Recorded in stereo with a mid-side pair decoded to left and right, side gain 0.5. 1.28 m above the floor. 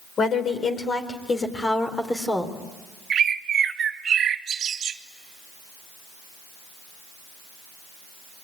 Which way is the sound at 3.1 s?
50° right.